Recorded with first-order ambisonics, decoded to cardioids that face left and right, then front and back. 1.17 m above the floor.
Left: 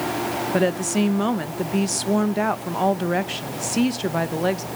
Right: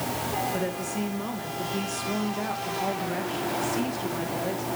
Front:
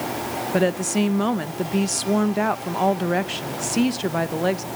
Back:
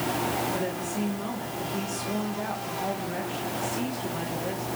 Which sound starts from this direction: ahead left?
A woman speaking, at 0.5 s.